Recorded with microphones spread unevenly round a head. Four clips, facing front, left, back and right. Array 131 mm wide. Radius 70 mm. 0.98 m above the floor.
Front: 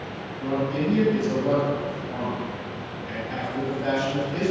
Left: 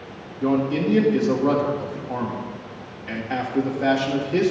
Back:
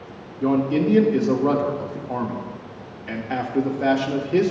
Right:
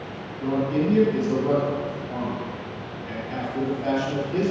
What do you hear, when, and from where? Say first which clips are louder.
0.4 s a man speaking: left 2 dB, back 6 dB; 150° left, 1.9 m